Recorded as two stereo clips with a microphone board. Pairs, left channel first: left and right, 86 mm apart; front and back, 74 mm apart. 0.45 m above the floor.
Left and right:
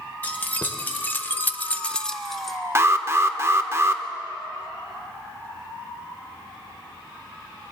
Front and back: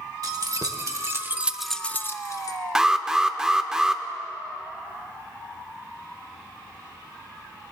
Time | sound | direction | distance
0.2 | keys jangling | 155° left | 1.2 m
2.8 | an alarm | 100° right | 0.6 m